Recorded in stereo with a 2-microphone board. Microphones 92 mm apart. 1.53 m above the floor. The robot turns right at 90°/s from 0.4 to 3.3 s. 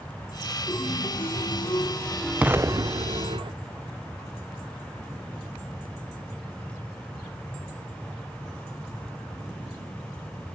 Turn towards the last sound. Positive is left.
turn(degrees=-85)